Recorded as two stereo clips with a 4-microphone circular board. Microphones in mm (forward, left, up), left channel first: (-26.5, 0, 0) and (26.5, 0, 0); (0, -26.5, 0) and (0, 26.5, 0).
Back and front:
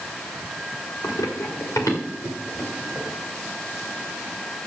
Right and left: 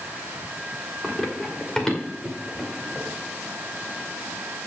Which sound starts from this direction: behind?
Running footsteps, at 1.0 s.